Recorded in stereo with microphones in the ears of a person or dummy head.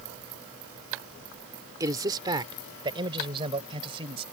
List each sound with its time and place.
1.8 s a man speaking: 20° right (ahead or behind); by 4.2 s 30° right (ahead or behind)